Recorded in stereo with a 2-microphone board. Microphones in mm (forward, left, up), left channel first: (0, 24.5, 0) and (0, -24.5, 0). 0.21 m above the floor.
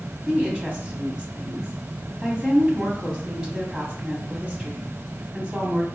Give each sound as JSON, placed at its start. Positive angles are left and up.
{"t": 0.3, "sound": "a woman speaking", "side_deg": -20, "distance_m": 1.1}